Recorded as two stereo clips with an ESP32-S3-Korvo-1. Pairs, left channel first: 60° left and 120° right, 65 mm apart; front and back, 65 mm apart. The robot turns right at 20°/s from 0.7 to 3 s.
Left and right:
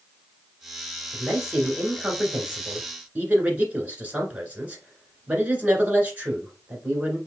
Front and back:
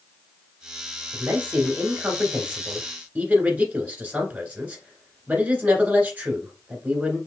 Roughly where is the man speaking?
Behind.